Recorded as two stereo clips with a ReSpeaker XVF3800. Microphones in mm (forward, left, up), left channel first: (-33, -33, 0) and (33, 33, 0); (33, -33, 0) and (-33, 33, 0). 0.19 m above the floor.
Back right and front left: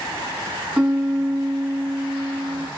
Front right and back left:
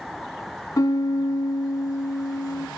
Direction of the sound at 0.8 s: 25° right.